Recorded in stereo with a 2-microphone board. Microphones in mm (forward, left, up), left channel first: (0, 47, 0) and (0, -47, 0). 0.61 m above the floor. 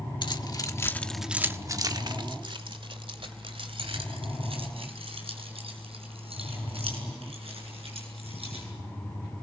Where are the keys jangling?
55° left (ahead or behind), 1.3 m; by 8.6 s 85° right, 8 m.